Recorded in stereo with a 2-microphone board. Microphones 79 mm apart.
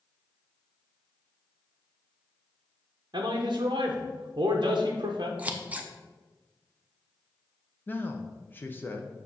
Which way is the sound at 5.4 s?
20° right (ahead or behind).